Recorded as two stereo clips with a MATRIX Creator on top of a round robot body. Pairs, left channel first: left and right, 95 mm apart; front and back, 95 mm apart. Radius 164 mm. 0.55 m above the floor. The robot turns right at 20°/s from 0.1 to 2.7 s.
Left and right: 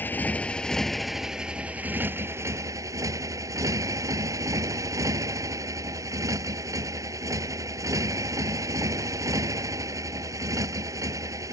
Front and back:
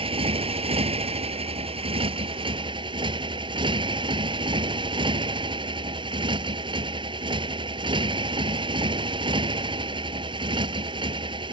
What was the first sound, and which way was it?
A motorcycle, 160° left.